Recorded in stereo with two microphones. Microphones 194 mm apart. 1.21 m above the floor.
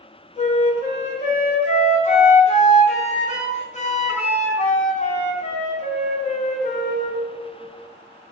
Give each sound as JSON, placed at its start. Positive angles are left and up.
{"t": 0.4, "sound": "a flute", "side_deg": 40, "distance_m": 0.7}